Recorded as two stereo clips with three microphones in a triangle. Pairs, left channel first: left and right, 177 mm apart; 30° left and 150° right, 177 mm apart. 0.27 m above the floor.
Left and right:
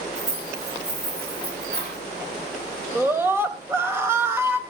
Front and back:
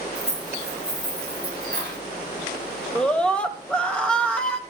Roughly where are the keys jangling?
Right.